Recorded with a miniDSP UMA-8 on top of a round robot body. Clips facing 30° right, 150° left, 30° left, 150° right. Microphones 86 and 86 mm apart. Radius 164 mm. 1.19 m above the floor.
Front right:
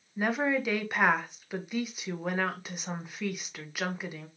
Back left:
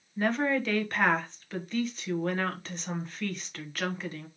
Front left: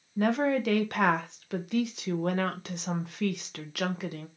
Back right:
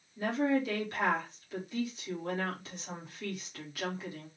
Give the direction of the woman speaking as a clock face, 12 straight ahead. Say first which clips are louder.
Back left 1 dB, front left 4 dB; 10 o'clock.